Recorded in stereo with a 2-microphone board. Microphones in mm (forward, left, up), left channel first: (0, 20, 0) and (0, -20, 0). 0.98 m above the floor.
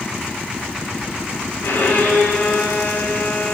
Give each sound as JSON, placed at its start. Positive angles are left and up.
{"t": 1.6, "sound": "a violin", "side_deg": 70, "distance_m": 2.5}